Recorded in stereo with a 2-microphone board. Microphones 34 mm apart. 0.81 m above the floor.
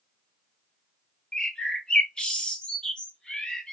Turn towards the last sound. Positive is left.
turn(degrees=25)  # may be behind; listen again after turning